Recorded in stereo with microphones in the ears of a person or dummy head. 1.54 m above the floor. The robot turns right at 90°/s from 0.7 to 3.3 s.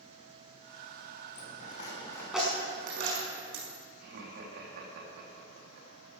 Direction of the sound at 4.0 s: 60° right (ahead or behind).